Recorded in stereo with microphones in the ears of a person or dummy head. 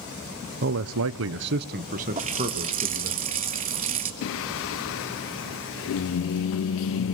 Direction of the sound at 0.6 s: 50° right (ahead or behind).